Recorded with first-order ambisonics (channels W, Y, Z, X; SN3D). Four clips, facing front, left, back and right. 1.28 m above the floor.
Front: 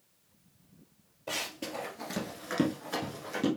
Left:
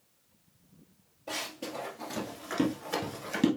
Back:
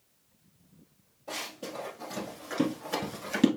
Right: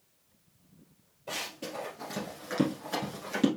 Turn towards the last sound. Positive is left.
turn(degrees=170)